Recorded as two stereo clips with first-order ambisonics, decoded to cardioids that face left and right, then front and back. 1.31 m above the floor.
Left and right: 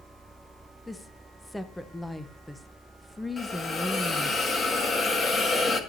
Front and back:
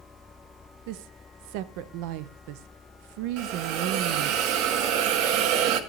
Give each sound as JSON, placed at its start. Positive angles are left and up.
{"t": 0.9, "sound": "a woman speaking", "azimuth_deg": 180, "distance_m": 0.7}
{"t": 3.4, "sound": "a hiss", "azimuth_deg": 160, "distance_m": 1.6}